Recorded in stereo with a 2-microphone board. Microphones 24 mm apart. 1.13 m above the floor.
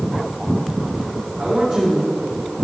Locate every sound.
1.4 s a man speaking: 40° right (ahead or behind), 3 m